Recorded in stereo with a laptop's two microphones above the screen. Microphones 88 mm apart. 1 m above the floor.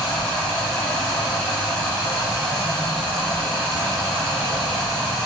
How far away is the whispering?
I don't hear whispering.